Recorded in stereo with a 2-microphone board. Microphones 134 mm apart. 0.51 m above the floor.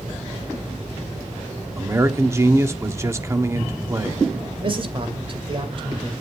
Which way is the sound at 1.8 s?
20° right (ahead or behind).